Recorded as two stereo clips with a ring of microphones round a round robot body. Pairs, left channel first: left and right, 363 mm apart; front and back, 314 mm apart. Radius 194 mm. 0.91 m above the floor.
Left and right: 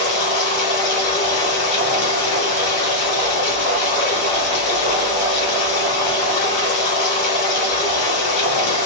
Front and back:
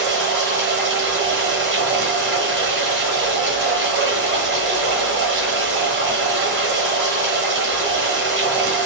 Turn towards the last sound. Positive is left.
turn(degrees=125)